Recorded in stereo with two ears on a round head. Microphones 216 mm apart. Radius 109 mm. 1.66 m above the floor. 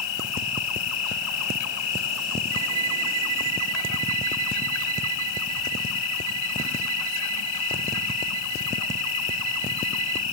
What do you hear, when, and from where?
0.0 s an insect: 75° left (ahead or behind)
2.5 s a violin: 65° right (ahead or behind)